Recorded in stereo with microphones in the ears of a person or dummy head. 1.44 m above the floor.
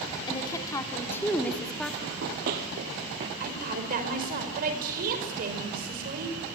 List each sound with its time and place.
0.3 s a woman speaking: 20° left (ahead or behind), 3.5 m; by 1.9 s centre (ahead or behind), 3 m
2.0 s running footsteps: 55° right (ahead or behind), 2.5 m; by 3.3 s 30° right (ahead or behind), 1.6 m
3.4 s a woman speaking: 50° right (ahead or behind), 5 m